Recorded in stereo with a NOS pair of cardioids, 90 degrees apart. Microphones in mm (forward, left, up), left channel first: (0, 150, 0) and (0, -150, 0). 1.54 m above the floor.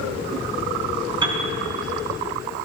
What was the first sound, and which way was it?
A piano, 15° right.